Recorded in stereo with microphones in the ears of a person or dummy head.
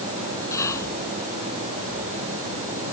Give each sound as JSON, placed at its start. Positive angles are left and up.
{"t": 0.5, "sound": "whispering", "side_deg": 15}